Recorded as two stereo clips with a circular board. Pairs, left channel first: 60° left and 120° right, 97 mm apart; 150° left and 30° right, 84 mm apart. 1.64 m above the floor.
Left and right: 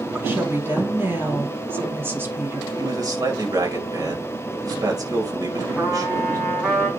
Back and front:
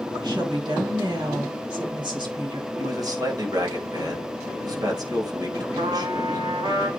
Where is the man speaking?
70° right, 2.5 m.